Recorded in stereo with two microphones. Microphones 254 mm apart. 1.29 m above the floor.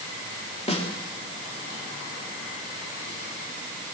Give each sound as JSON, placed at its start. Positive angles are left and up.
{"t": 0.7, "sound": "a snare drum", "side_deg": 25, "distance_m": 3.0}